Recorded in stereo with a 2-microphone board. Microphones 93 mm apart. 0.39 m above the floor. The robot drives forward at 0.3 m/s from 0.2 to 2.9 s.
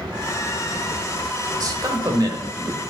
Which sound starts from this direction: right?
A man speaking, at 1.6 s.